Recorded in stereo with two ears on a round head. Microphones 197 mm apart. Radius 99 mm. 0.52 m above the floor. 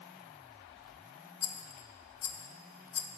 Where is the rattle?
55° left (ahead or behind), 0.9 m.